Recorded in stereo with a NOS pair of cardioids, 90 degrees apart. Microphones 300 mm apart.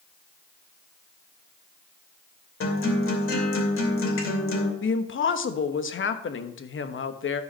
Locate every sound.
2.6 s a guitar: 40° left, 2.5 m
4.8 s a woman speaking: 40° left, 1.2 m